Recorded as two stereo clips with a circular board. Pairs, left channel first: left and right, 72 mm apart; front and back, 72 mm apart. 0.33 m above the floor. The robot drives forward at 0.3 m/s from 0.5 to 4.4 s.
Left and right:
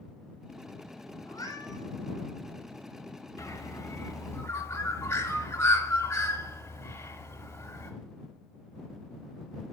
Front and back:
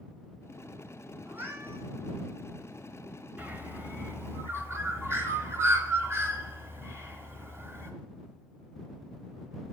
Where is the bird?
120° left, 1.0 m; by 7.9 s 135° left, 1.1 m.